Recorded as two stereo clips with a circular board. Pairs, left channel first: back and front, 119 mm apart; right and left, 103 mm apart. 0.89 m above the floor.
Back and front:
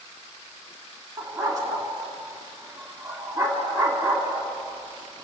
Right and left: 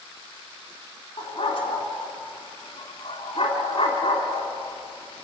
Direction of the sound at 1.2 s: 60° right.